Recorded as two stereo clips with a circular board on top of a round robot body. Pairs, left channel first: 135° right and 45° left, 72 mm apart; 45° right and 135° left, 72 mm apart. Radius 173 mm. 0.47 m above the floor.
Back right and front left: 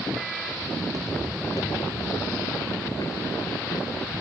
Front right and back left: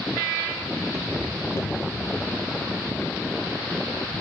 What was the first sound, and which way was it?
Footsteps, 85° left.